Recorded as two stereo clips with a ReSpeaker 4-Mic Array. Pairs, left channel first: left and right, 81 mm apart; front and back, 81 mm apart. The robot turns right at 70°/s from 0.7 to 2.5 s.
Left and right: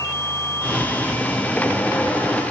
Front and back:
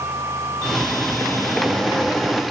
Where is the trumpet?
No trumpet in this recording.